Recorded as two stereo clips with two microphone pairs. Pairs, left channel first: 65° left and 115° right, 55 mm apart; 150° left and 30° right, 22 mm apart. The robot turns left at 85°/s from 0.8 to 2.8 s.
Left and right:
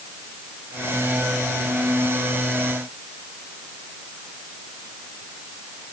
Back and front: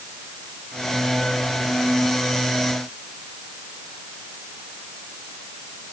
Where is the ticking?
No ticking in this recording.